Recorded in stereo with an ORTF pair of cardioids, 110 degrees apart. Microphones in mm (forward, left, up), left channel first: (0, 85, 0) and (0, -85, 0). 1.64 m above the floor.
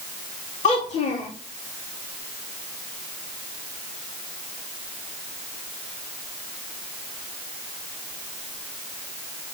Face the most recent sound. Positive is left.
turn(degrees=50)